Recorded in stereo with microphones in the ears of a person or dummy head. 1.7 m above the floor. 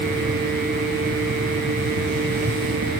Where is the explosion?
No explosion in this recording.